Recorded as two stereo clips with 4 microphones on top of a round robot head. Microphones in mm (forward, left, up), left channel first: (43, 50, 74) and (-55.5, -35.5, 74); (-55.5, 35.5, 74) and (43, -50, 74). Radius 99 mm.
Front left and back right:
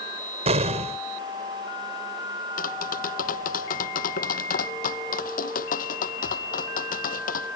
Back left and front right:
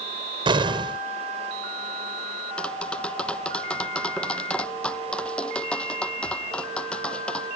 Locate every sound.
0.5 s an explosion: 95° right
2.6 s tapping: 55° left